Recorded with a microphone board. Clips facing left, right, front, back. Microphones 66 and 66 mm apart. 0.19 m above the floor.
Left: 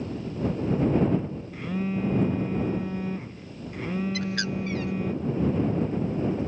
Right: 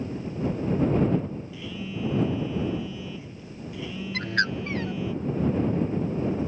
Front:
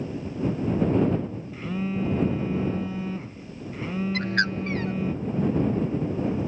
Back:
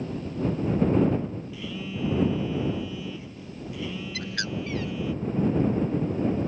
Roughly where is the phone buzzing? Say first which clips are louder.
Left 5 dB, front 5 dB; ahead left.